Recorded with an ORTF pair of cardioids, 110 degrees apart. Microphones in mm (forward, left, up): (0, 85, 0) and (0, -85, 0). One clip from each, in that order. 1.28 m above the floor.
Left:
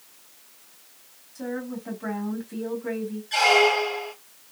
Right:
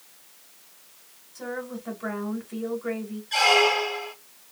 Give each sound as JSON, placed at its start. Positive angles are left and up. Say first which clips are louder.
{"t": 1.4, "sound": "a woman speaking", "louder": "left 1 dB", "azimuth_deg": 5, "distance_m": 1.5}
{"t": 3.3, "sound": "a squeak", "louder": "left 1 dB", "azimuth_deg": 5, "distance_m": 1.0}